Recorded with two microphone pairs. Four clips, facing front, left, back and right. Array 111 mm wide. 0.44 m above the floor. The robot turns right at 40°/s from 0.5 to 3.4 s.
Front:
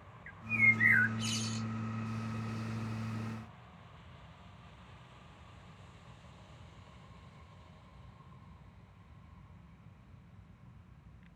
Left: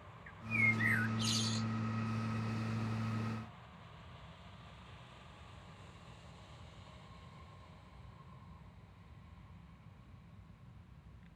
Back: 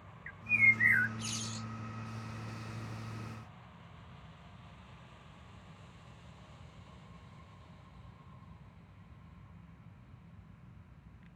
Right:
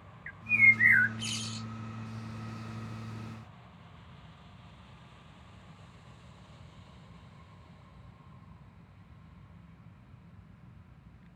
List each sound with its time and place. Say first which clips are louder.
0.3 s a bird: right 9 dB, back 1 dB; 100° right; by 1.7 s 55° right